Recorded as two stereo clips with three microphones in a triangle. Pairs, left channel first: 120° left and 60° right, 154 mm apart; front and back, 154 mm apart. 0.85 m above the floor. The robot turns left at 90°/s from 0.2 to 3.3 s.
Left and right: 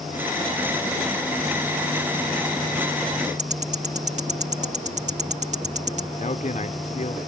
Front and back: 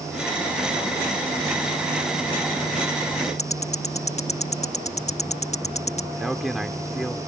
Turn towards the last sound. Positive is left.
turn(degrees=90)